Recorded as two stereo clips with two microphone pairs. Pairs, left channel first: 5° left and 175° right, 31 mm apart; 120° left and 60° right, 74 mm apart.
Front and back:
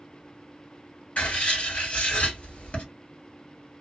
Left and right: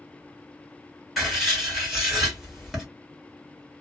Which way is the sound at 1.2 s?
25° left.